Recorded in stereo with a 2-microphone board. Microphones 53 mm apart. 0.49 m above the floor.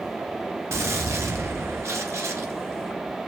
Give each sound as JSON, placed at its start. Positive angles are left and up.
{"t": 0.7, "sound": "a gunshot", "side_deg": -60, "distance_m": 1.0}